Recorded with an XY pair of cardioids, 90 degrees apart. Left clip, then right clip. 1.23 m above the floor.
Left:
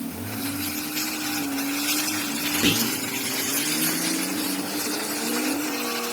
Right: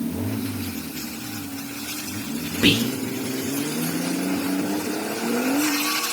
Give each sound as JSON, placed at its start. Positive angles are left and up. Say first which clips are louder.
{"t": 2.6, "sound": "whispering", "louder": "right 5 dB", "azimuth_deg": -45, "distance_m": 0.6}